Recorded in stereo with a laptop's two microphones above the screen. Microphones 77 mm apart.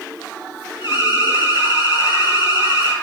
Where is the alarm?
80° left, 5 m.